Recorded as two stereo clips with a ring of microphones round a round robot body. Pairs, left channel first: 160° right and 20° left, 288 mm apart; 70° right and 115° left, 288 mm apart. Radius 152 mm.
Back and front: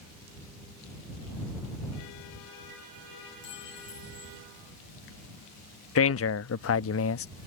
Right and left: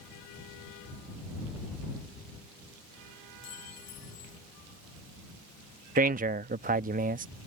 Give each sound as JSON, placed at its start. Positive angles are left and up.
{"t": 3.4, "sound": "a clink", "azimuth_deg": -105}
{"t": 6.0, "sound": "a man speaking", "azimuth_deg": 170}